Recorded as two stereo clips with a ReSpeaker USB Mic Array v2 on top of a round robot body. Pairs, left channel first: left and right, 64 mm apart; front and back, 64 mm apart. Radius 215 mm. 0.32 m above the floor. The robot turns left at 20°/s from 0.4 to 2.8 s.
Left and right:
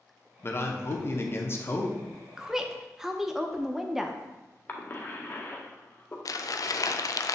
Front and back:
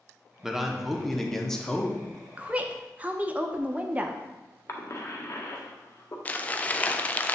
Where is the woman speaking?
155° right, 0.9 m; by 4.2 s 165° right, 0.9 m.